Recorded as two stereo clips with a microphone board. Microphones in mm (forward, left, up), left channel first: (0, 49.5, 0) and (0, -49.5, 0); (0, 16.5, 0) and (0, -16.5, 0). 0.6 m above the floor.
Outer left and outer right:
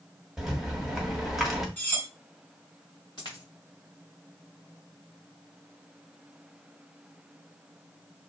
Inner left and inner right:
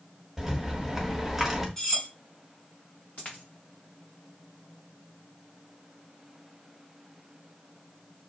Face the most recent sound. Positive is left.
turn(degrees=45)  # may be behind; listen again after turning